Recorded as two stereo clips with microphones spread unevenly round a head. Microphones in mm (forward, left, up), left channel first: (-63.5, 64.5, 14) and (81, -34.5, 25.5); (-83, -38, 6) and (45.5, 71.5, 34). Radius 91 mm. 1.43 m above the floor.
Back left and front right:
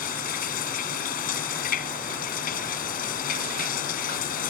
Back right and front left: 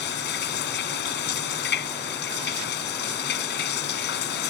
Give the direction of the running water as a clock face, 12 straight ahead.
6 o'clock.